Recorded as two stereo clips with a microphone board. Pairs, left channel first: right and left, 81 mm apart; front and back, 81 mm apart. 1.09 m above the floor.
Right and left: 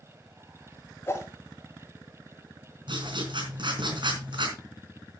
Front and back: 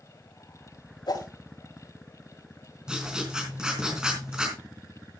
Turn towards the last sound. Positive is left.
turn(degrees=100)